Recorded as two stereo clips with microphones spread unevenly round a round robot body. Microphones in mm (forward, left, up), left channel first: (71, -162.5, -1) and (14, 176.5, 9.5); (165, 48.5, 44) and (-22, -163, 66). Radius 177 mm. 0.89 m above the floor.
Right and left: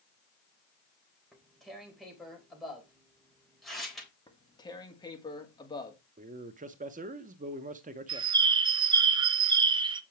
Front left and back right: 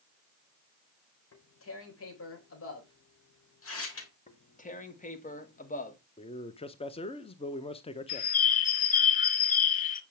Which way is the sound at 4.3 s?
5° right.